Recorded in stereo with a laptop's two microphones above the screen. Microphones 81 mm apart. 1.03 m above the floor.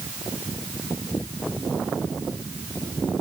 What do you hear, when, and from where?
Only background noise.